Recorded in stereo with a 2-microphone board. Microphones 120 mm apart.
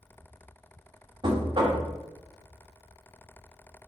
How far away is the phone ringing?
I don't hear a phone ringing.